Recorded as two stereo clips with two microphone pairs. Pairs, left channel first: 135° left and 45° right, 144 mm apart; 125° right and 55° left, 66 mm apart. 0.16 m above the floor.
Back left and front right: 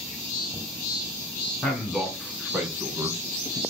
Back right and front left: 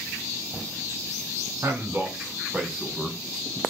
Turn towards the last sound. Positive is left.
turn(degrees=-85)